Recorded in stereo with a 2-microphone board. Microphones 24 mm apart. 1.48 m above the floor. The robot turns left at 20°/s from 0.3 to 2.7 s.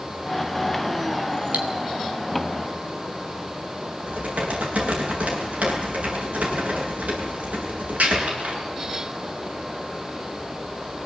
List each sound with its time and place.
1.5 s cutlery clinking: 70° right (ahead or behind), 2.5 m
4.1 s typing on a keyboard: 75° right (ahead or behind), 8 m